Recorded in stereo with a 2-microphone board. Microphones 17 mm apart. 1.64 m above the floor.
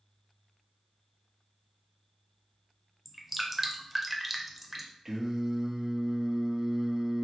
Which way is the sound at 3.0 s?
15° right (ahead or behind).